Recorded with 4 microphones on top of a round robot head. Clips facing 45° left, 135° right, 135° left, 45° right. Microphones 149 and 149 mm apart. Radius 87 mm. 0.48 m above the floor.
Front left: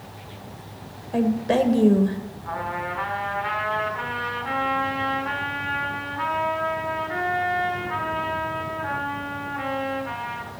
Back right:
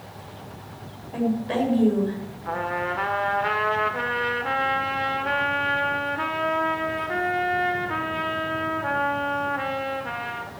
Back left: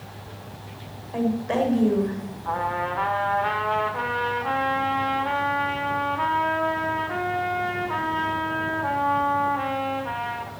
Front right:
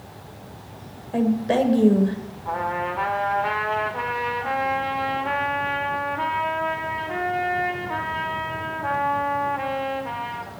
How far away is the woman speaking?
About 1.7 m.